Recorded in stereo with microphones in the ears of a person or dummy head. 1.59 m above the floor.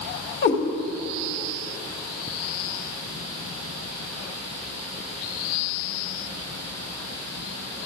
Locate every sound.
0.4 s a cat meowing: 50° left (ahead or behind), 1.4 m